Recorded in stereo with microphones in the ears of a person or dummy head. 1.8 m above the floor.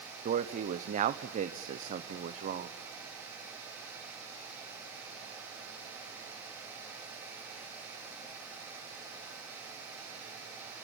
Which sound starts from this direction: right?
A man speaking, at 0.2 s.